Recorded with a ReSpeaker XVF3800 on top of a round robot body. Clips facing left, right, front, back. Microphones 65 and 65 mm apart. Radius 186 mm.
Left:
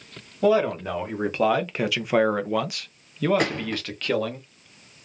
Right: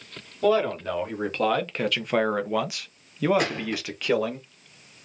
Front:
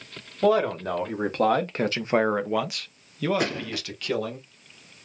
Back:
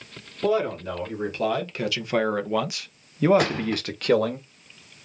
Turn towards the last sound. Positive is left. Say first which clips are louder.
# left 1 dB, back 4 dB
turn(degrees=150)